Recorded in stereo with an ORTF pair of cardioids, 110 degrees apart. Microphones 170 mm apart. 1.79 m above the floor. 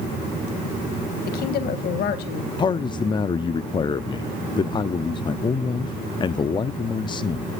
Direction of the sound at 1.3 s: 65° left.